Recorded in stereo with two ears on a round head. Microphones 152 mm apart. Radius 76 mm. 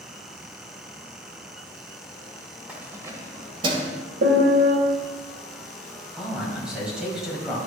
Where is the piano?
55° right (ahead or behind), 1.7 m.